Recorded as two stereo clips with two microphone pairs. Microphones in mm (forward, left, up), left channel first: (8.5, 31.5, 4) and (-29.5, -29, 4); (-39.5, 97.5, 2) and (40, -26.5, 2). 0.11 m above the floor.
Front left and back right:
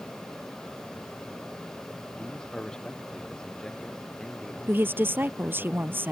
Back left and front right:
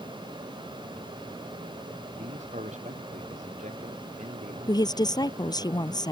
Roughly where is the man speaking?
Ahead.